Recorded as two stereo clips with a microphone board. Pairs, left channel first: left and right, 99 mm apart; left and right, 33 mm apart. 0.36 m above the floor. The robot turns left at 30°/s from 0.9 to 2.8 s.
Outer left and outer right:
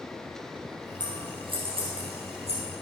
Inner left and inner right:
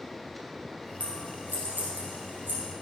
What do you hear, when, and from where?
1.0 s scissors: 45° right (ahead or behind), 3.5 m; by 2.6 s 90° right, 3.5 m